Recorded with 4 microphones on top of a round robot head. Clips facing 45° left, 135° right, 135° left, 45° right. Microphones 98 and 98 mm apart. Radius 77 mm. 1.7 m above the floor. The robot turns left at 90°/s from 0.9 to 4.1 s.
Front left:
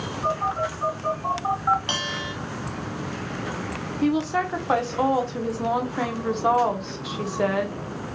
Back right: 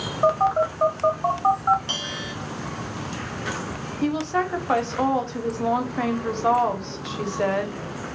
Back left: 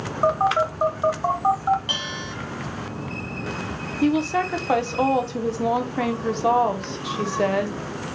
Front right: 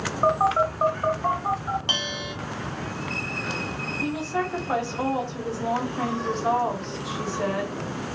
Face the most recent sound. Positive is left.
turn(degrees=130)